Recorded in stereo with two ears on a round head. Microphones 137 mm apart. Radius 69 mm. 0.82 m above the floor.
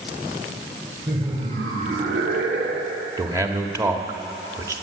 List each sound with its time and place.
1.1 s laughter: 25° right (ahead or behind), 2.5 m; by 3.1 s 70° right (ahead or behind), 2.5 m
3.2 s a man speaking: 20° right (ahead or behind), 1.6 m